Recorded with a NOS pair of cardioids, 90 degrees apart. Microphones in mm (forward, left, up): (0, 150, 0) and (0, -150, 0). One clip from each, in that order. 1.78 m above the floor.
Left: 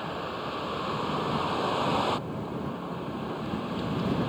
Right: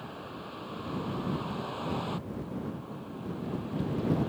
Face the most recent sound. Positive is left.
turn(degrees=70)